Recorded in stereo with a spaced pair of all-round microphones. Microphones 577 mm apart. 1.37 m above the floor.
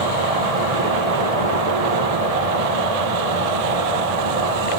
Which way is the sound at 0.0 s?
80° right.